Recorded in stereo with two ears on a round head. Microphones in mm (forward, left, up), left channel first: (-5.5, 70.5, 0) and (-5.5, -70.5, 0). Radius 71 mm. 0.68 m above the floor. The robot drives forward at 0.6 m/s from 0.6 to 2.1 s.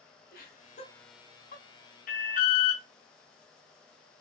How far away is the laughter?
About 2.5 m.